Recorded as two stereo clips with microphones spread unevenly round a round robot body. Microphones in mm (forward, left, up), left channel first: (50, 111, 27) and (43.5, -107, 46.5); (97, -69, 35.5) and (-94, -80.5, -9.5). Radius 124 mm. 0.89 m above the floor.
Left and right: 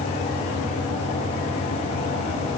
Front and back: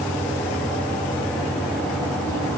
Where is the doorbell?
I don't hear a doorbell.